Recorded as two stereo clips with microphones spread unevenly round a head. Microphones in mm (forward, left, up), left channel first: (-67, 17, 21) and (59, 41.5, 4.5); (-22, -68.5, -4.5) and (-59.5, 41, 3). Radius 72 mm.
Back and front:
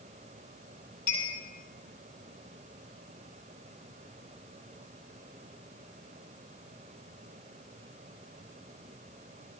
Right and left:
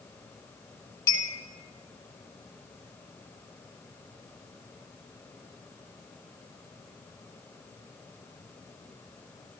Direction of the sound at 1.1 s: 135° right.